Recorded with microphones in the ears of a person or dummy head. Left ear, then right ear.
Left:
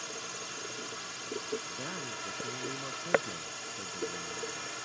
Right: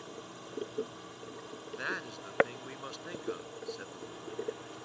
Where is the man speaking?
75° right (ahead or behind).